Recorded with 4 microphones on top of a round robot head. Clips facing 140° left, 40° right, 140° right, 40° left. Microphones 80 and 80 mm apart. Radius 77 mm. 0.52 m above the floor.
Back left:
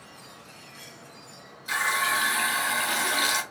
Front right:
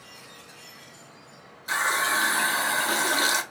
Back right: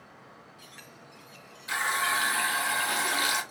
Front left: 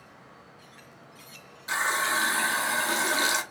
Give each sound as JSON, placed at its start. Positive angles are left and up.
{"t": 1.7, "sound": "a running tap", "azimuth_deg": 0, "distance_m": 0.7}